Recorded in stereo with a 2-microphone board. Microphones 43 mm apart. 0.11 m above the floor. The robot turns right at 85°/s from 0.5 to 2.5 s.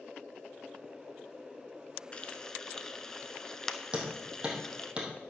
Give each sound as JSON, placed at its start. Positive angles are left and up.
{"t": 2.1, "sound": "frying", "side_deg": 25, "distance_m": 0.7}
{"t": 3.9, "sound": "hammering", "side_deg": -20, "distance_m": 3.0}